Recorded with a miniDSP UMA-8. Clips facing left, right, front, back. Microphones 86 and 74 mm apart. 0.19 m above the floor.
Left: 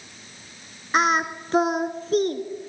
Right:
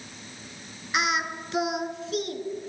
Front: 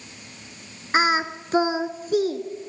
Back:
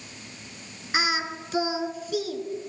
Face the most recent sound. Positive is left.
turn(degrees=45)